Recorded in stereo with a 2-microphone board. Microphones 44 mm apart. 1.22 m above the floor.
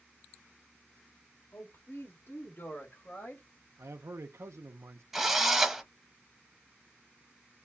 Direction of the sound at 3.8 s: 80° right.